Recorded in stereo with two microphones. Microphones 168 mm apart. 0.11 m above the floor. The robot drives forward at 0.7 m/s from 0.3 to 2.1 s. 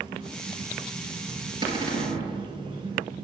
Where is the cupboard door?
25° right (ahead or behind), 1.4 m.